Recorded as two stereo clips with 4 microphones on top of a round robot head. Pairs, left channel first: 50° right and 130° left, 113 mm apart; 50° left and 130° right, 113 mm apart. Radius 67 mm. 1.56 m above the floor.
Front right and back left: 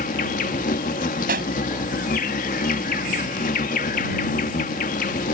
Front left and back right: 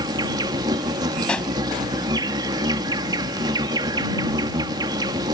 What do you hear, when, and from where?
0.0 s an insect: 70° right
1.3 s a pop: 135° left